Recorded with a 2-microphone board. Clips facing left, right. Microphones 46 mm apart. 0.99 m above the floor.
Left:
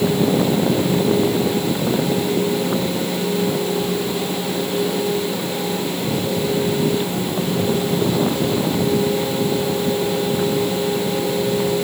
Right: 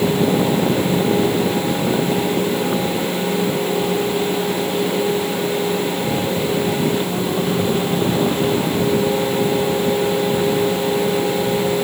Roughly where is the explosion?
I don't hear an explosion.